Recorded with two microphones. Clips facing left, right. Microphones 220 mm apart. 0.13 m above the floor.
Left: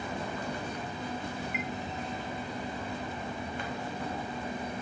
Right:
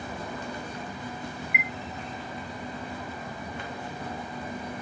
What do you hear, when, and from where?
1.5 s a chime: 15° right (ahead or behind)